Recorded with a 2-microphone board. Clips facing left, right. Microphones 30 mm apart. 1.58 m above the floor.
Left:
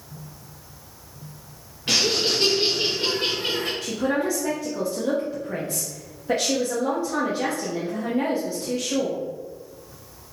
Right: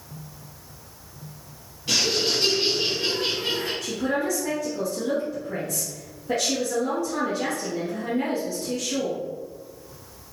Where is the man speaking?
25° left (ahead or behind), 0.8 m.